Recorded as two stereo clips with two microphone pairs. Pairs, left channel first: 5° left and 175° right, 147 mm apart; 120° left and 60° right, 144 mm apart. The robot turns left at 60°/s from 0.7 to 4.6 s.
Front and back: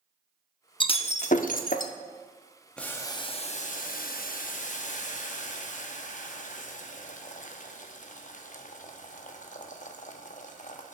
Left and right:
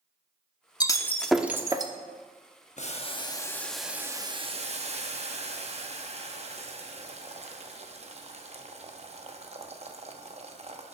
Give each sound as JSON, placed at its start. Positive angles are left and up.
{"t": 0.8, "sound": "breaking glass", "azimuth_deg": 60, "distance_m": 0.6}
{"t": 2.8, "sound": "boiling", "azimuth_deg": 90, "distance_m": 0.8}